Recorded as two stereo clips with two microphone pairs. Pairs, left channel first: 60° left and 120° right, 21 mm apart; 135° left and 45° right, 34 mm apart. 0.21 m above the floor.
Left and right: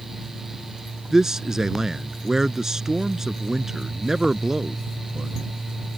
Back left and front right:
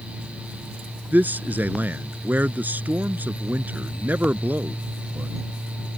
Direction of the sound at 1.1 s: 55° right.